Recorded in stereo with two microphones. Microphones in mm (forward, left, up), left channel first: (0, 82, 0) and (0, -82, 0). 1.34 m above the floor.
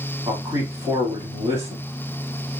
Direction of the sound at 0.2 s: 35° right (ahead or behind).